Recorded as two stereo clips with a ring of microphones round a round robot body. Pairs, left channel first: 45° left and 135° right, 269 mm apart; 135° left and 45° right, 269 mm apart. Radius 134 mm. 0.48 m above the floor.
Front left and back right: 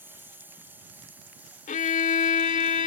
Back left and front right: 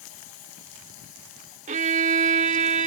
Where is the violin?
Straight ahead.